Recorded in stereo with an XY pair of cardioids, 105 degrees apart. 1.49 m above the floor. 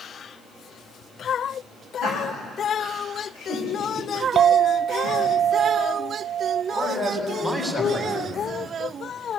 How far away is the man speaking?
About 7 m.